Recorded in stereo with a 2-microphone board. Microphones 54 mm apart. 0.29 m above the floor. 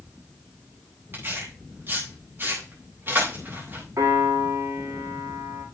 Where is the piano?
85° right, 9 m.